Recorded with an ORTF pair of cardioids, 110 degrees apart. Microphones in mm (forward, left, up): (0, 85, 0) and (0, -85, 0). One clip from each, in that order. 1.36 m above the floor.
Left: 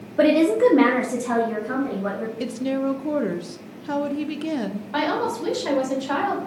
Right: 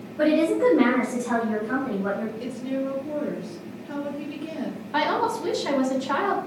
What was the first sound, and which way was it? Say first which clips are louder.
A woman speaking: left 4 dB; 65° left.